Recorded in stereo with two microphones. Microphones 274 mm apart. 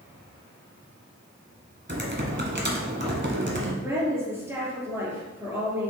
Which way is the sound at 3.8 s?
10° right (ahead or behind).